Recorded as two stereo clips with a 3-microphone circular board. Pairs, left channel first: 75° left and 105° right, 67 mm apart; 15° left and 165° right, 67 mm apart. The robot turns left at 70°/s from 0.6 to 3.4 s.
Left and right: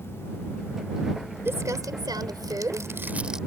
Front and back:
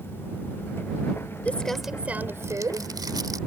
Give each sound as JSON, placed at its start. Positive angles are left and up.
{"t": 1.4, "sound": "crumpling", "azimuth_deg": -50}